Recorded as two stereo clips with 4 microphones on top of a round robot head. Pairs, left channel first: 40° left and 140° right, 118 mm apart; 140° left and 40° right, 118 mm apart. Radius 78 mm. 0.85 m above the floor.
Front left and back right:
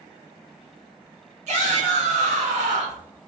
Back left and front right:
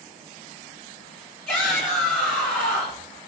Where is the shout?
145° right, 1.8 m.